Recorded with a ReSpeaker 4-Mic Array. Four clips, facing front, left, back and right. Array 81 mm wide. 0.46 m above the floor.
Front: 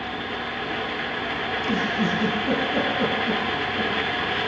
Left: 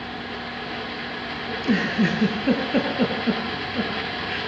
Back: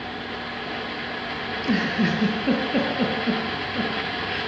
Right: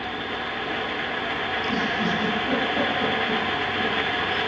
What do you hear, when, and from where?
1.5 s a giggle: 115° left, 8 m